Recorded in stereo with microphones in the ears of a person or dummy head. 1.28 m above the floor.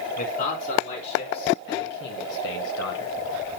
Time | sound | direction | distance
0.2 | a man speaking | 60° left (ahead or behind) | 3.5 m